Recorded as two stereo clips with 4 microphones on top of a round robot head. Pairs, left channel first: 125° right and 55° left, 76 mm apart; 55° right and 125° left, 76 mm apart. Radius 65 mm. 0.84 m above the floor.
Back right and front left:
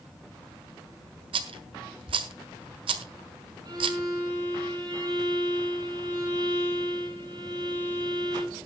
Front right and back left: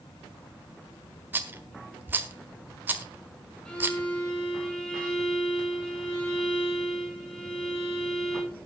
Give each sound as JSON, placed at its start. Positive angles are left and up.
{"t": 1.3, "sound": "a rattle", "azimuth_deg": 55, "distance_m": 1.5}
{"t": 3.6, "sound": "a violin", "azimuth_deg": 20, "distance_m": 9.5}